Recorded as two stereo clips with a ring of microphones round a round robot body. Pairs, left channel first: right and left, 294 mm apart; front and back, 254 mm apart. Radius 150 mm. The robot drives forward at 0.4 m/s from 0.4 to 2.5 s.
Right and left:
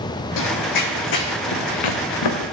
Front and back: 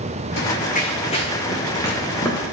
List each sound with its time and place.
0.4 s running footsteps: 55° right, 0.8 m; by 2.4 s 85° right, 2.5 m